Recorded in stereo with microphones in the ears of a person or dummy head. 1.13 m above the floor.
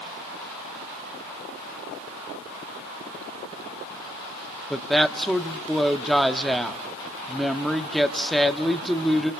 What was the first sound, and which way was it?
A woman speaking, 5° left (ahead or behind).